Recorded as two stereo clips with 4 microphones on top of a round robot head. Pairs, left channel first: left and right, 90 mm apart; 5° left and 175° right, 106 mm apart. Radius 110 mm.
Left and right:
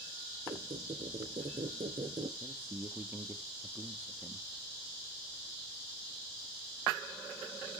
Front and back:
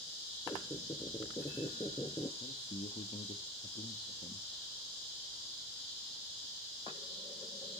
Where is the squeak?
60° right, 0.6 m.